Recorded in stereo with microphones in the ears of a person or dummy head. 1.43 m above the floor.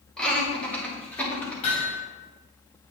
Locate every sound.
0.2 s laughter: 5° left (ahead or behind), 3 m; by 1.5 s 10° left (ahead or behind), 4 m
1.6 s hammering: 40° left (ahead or behind), 3.5 m